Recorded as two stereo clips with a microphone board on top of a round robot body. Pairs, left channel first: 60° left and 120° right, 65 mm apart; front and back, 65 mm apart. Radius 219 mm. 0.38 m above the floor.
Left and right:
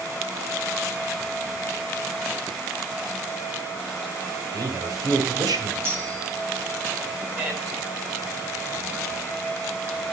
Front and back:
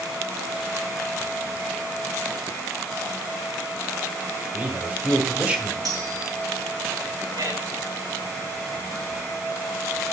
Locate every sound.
4.5 s a man speaking: 110° right, 3 m
5.8 s cutlery clinking: 175° right, 4.5 m
7.4 s a man speaking: 175° left, 5 m